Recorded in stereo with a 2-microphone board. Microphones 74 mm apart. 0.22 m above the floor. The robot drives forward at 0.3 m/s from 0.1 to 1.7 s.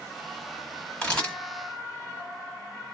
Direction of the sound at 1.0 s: 15° left (ahead or behind).